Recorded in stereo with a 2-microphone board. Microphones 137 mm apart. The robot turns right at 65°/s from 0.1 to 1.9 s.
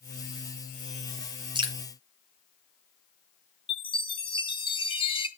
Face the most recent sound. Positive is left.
turn(degrees=40)  # may be behind; listen again after turning